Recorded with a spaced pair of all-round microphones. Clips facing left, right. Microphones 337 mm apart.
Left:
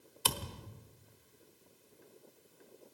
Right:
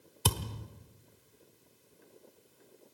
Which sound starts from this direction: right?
A thud, at 0.2 s.